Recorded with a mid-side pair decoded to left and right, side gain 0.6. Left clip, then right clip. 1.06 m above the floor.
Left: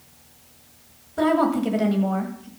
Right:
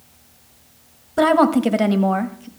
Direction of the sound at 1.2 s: 40° right.